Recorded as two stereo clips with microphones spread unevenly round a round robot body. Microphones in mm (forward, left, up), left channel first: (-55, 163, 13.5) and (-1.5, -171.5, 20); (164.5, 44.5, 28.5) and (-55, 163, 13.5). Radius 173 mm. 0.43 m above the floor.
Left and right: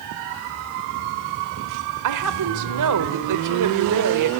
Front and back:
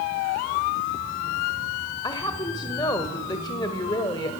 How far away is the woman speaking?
About 1.3 m.